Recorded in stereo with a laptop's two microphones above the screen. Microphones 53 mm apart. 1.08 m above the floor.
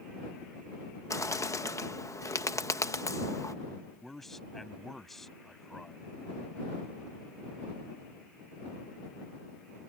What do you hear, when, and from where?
1.1 s a bird: 75° left (ahead or behind)
4.0 s a man speaking: 5° left (ahead or behind)